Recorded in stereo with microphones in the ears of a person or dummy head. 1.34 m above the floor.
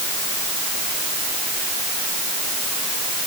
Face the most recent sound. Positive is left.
No sound to turn to.